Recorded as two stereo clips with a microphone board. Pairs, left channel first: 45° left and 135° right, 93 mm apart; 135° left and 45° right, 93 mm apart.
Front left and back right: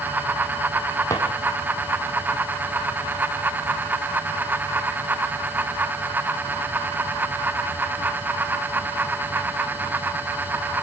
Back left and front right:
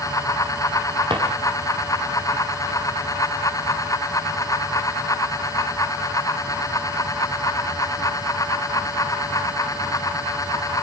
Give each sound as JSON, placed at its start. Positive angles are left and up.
{"t": 1.1, "sound": "a drawer", "azimuth_deg": -15, "distance_m": 4.0}